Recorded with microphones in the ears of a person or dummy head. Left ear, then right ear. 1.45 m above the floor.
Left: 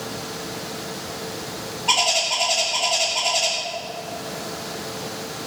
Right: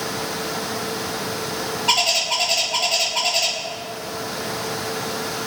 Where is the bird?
15° right (ahead or behind), 2.5 m.